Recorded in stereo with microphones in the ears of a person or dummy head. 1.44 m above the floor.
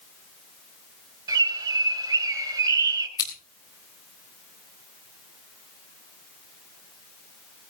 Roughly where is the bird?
Centre.